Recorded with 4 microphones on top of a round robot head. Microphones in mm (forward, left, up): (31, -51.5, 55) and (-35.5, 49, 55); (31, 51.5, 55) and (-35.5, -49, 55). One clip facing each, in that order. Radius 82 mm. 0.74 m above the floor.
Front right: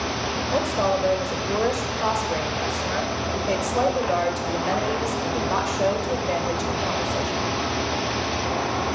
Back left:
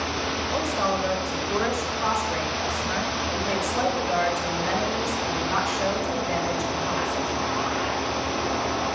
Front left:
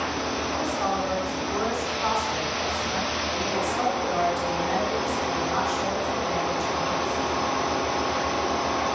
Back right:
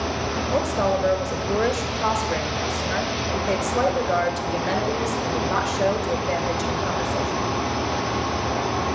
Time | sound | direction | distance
0.5 | a woman speaking | 115° right | 2.5 m